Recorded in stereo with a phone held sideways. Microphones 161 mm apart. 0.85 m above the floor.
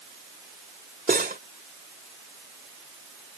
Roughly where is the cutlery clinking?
Right.